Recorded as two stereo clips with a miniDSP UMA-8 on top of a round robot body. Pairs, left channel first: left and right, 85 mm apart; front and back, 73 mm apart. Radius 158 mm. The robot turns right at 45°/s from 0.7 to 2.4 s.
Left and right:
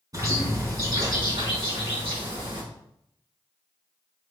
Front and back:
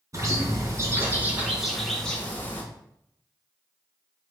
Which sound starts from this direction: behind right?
A bird, at 0.1 s.